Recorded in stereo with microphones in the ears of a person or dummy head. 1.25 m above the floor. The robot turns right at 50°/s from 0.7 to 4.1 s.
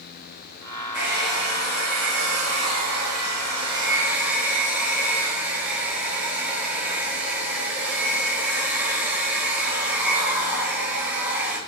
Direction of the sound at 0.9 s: 170° right.